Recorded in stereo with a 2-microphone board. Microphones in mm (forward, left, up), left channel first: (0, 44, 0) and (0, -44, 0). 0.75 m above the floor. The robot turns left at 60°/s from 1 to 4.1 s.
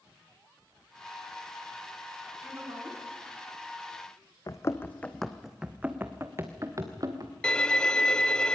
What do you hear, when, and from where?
2.4 s a woman speaking: 20° right, 6.5 m; by 3.1 s 60° right, 6.5 m
4.5 s running footsteps: 40° left (ahead or behind), 2.0 m; by 7.3 s 45° right (ahead or behind), 4 m
7.4 s a violin: 10° left (ahead or behind), 0.6 m